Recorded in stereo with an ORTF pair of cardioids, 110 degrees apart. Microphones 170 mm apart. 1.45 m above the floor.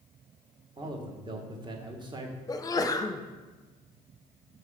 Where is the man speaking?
30° right, 1.6 m.